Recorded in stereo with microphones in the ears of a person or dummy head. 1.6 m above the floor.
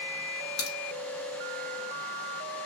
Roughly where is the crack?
Left.